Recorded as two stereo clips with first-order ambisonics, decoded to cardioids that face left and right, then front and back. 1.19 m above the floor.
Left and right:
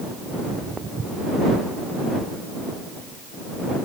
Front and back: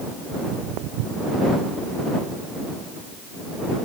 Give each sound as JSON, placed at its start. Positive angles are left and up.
{"t": 0.3, "sound": "footsteps", "azimuth_deg": -160}